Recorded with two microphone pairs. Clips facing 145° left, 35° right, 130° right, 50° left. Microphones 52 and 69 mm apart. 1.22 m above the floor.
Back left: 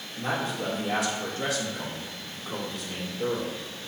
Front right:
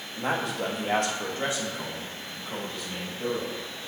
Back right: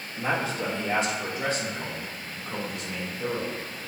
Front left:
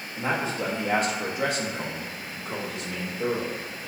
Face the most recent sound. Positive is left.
turn(degrees=70)